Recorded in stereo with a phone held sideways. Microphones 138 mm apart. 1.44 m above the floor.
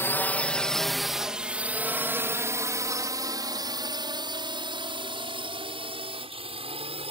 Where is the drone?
15° left (ahead or behind); by 7.1 s 45° right (ahead or behind).